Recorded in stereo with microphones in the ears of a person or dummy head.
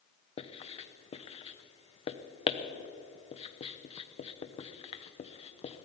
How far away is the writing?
About 0.8 m.